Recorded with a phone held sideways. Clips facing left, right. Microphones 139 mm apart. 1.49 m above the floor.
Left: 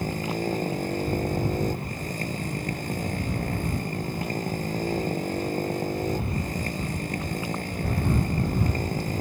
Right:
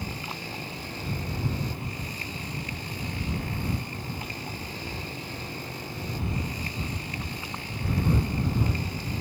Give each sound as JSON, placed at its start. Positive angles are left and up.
{"t": 0.0, "sound": "a motorcycle", "side_deg": 45}